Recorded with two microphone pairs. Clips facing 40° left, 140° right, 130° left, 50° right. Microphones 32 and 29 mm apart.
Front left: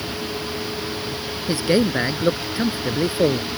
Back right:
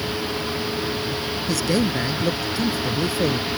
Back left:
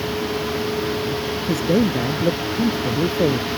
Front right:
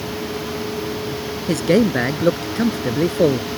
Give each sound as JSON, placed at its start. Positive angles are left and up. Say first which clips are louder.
{"t": 1.5, "sound": "a man speaking", "louder": "front left 4 dB, front right 3 dB", "azimuth_deg": -20}